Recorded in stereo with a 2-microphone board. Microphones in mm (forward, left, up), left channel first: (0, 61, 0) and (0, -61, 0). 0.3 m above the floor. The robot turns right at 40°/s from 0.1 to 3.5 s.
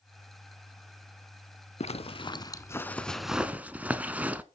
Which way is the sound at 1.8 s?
55° left (ahead or behind).